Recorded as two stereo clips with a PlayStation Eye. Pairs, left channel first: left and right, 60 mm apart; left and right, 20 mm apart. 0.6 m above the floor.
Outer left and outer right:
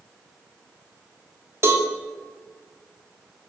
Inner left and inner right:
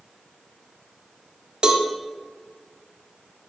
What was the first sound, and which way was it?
A cowbell, 50° right (ahead or behind).